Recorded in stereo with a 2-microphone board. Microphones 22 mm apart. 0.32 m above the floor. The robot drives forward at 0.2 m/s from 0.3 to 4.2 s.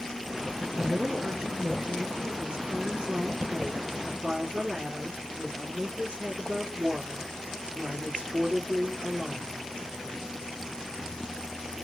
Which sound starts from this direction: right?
A woman speaking, at 0.8 s.